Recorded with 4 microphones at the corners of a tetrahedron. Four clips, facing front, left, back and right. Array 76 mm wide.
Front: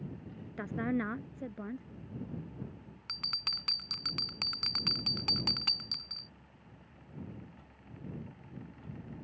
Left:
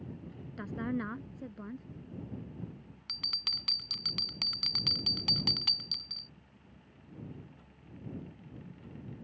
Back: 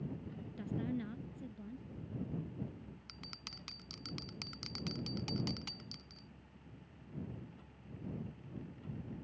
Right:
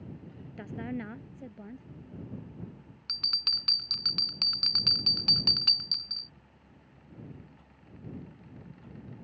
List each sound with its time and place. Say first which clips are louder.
0.6 s a woman speaking: left 2 dB, front 7 dB; 5° left
3.1 s a bell: right 4 dB, front 9 dB; 15° right